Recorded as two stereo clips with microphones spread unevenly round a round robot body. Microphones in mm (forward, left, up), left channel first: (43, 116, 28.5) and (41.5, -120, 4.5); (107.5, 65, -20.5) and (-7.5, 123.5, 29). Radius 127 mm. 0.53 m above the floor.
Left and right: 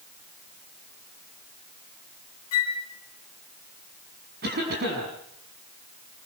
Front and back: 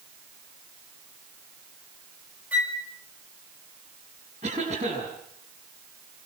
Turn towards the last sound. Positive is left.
turn(degrees=-140)